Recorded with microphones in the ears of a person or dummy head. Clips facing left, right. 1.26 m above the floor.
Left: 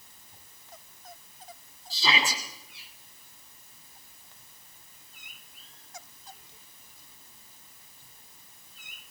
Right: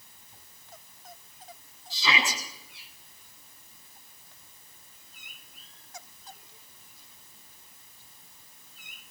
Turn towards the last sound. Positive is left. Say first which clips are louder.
# even
turn(degrees=35)  # may be behind; listen again after turning